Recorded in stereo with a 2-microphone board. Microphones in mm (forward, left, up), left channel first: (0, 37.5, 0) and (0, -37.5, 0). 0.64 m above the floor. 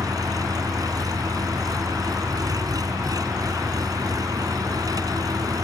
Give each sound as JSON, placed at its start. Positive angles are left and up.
{"t": 0.0, "sound": "an engine running", "side_deg": -55}